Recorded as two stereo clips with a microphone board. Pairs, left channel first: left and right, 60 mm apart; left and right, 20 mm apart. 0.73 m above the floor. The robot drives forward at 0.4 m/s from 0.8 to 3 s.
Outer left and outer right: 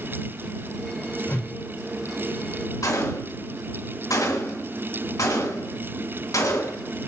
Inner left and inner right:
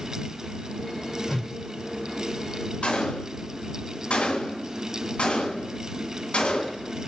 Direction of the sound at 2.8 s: 70° left (ahead or behind).